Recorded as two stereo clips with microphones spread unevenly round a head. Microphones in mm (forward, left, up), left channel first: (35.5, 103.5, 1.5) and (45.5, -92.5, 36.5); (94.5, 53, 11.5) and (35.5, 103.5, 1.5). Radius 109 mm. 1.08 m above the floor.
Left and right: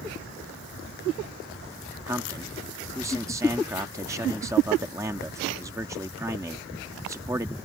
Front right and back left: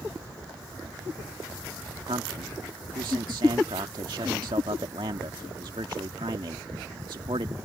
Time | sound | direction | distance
2.0 | a man speaking | 165° right | ?